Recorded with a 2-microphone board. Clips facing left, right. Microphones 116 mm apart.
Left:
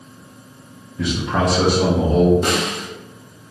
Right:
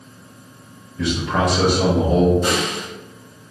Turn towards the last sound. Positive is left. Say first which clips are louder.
# even
turn(degrees=65)  # may be behind; listen again after turning